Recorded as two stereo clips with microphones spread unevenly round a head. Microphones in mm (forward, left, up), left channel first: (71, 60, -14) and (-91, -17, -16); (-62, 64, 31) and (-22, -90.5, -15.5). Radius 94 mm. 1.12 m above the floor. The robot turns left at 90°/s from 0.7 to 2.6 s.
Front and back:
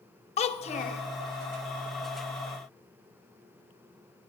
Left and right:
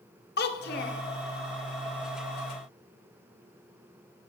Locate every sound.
0.4 s a child speaking: 80° left, 0.8 m; by 1.0 s 50° left, 0.8 m